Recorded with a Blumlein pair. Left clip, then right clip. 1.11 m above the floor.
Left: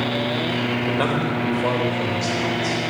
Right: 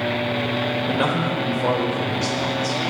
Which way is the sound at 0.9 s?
Straight ahead.